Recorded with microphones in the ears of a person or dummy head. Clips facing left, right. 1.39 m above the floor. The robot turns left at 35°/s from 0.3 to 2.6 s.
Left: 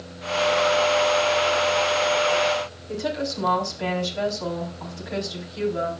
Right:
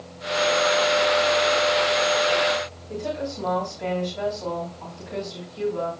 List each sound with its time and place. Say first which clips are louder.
2.9 s a woman speaking: left 2 dB; 70° left (ahead or behind), 3.5 m